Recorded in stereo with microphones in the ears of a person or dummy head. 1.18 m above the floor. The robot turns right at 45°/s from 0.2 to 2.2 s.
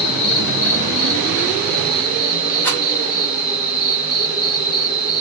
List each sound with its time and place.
0.0 s an insect: 60° left, 1.2 m; by 5.2 s 150° left, 1.2 m
2.6 s a rattle: 15° left (ahead or behind), 1.4 m